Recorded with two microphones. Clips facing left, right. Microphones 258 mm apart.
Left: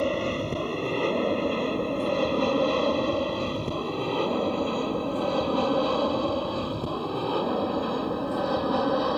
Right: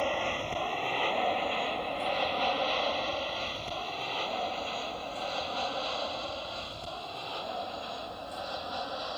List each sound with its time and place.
0.0 s an aircraft: 45° left (ahead or behind); by 9.2 s 70° left (ahead or behind)